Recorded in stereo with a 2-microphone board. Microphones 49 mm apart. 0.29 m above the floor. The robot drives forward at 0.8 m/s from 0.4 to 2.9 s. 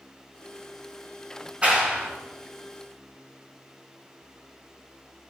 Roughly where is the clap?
Right.